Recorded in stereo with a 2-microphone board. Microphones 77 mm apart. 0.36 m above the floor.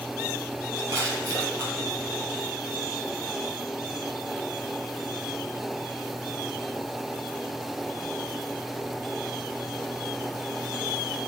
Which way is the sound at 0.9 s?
40° right (ahead or behind).